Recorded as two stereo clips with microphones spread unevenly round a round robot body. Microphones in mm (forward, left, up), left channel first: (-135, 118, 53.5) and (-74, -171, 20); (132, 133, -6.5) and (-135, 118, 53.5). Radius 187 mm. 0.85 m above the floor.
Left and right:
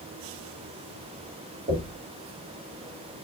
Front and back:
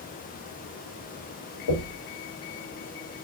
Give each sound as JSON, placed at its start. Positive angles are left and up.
{"t": 1.7, "sound": "knocking", "azimuth_deg": -10, "distance_m": 1.9}